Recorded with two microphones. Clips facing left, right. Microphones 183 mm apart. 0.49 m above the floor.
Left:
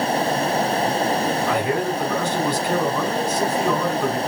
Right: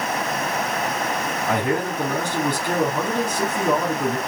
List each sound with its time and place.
1.5 s a man speaking: 60° right (ahead or behind), 3.5 m